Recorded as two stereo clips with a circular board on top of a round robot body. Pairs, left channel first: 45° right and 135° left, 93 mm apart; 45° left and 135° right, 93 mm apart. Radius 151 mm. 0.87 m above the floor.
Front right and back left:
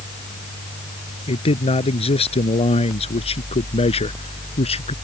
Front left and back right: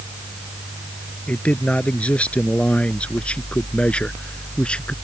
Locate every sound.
1.3 s a man speaking: 30° right; by 5.0 s 35° right